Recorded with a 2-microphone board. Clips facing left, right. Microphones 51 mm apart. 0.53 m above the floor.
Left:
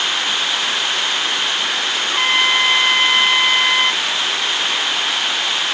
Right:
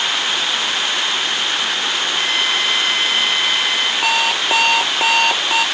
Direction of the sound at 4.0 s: 80° right.